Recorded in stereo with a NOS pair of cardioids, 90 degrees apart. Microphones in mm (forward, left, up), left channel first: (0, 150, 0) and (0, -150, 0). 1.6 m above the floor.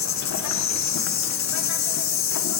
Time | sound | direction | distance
0.0 | an insect | 65° left | 1.2 m